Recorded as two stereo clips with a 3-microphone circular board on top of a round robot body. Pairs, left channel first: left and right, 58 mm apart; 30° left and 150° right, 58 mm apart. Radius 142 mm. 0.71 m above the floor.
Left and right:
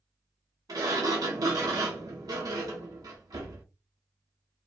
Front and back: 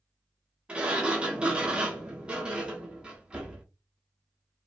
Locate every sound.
0.7 s a sliding door: 75° right, 0.6 m